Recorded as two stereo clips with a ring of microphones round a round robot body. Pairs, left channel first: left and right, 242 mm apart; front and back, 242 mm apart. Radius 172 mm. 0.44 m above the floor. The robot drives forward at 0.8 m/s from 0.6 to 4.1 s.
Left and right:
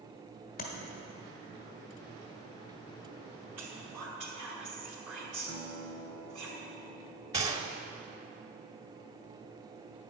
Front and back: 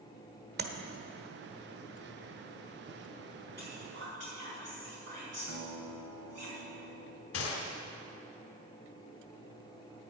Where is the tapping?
145° left, 1.4 m.